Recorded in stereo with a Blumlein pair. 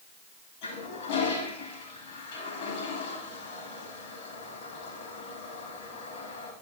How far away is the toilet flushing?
About 3 m.